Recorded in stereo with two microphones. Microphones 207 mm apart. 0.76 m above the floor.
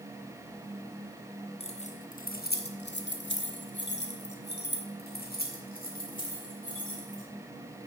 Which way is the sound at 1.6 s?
30° left (ahead or behind).